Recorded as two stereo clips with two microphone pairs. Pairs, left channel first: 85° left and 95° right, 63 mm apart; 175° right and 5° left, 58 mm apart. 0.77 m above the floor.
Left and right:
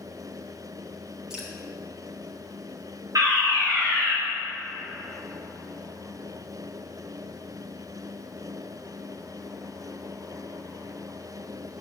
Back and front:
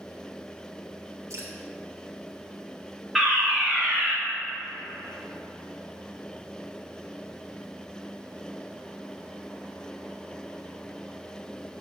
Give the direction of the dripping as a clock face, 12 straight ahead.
1 o'clock.